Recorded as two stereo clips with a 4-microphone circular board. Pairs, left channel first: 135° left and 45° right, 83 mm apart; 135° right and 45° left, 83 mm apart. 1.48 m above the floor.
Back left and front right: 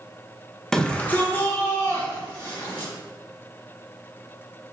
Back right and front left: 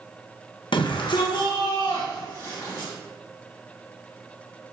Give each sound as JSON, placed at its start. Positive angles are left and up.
{"t": 0.7, "sound": "a shout", "azimuth_deg": -140, "distance_m": 0.8}